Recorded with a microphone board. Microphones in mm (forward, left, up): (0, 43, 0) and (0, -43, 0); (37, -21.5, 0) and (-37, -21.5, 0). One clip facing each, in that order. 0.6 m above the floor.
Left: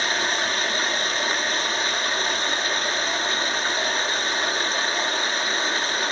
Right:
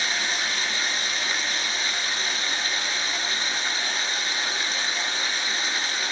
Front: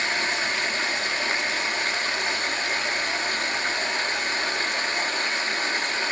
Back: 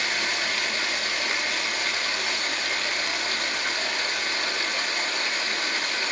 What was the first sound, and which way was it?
Running water, 55° left.